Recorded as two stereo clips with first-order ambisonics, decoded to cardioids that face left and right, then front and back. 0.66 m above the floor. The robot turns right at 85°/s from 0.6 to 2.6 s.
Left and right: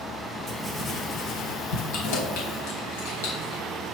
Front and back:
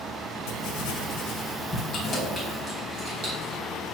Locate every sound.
0.5 s writing: 20° right, 2 m; by 1.8 s 85° left, 2 m
1.9 s keys jangling: 60° left, 3.5 m; by 3.6 s 115° left, 3.5 m